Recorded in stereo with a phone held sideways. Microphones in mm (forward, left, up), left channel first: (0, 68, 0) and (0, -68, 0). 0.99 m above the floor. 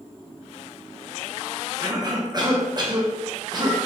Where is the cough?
30° right (ahead or behind), 0.7 m.